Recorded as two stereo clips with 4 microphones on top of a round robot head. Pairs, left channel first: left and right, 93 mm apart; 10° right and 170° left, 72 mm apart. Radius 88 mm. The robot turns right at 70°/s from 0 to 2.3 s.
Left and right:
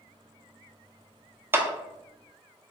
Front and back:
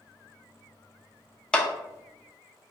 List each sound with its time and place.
1.5 s a clap: 75° right, 0.5 m; by 1.7 s 65° right, 0.5 m